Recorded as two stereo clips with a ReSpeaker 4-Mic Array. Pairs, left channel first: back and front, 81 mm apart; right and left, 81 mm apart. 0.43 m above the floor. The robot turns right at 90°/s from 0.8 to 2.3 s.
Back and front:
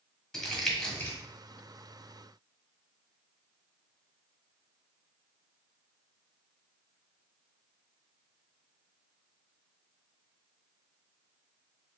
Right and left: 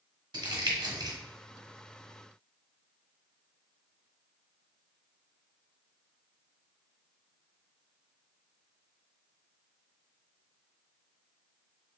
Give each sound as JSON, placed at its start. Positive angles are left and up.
{"t": 0.3, "sound": "crumpling", "azimuth_deg": 95, "distance_m": 1.5}